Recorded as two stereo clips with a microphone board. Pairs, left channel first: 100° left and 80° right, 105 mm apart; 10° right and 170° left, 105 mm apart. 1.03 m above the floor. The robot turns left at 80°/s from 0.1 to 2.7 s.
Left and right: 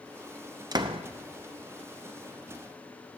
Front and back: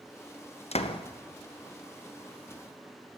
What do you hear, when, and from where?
0.7 s a door slam: 25° right, 0.6 m; by 1.0 s 50° right, 0.6 m